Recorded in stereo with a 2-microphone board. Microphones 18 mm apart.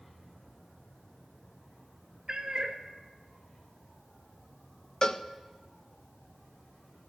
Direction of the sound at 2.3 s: 40° right (ahead or behind).